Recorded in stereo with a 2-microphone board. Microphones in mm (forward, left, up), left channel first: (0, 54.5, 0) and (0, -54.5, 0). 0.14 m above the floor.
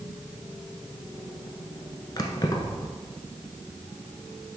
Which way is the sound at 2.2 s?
35° left (ahead or behind).